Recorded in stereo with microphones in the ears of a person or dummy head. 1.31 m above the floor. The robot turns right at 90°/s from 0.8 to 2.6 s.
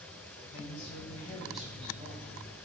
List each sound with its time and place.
0.5 s a woman speaking: 115° left, 1.7 m; by 2.5 s 90° right, 1.7 m